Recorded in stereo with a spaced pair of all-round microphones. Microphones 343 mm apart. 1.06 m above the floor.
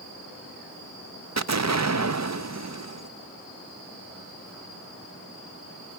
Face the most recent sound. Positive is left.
turn(degrees=-50)  # may be behind; listen again after turning